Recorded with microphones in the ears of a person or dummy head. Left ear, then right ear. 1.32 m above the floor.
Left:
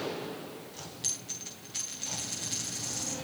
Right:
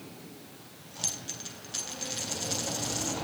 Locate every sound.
1.0 s a dropped coin: 55° right (ahead or behind), 8.5 m